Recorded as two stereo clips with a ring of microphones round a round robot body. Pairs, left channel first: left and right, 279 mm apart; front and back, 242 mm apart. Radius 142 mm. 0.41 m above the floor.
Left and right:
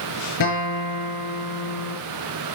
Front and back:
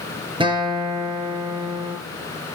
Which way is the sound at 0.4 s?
110° left.